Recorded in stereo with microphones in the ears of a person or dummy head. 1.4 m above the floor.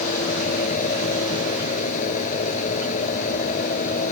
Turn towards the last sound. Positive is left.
turn(degrees=40)  # may be behind; listen again after turning